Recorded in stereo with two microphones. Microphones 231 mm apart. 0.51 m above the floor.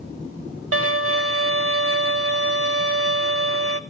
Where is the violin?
70° right (ahead or behind), 0.8 m.